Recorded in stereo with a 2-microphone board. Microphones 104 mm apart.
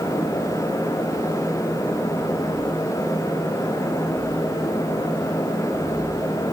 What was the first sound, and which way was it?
Only background noise.